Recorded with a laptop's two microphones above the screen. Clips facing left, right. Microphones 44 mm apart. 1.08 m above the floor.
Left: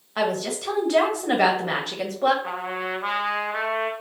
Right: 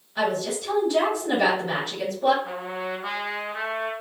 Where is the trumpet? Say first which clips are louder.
Left 2 dB; 65° left (ahead or behind), 0.7 m.